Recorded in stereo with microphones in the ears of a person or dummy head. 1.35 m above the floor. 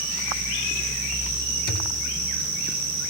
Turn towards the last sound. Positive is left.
turn(degrees=55)  # may be behind; listen again after turning